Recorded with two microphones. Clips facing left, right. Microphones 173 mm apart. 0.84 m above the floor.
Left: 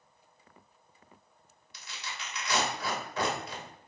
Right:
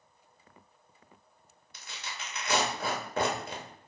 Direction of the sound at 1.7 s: 50° right (ahead or behind).